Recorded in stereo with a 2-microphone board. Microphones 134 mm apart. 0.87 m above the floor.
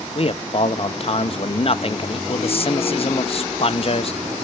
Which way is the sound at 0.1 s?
45° left (ahead or behind).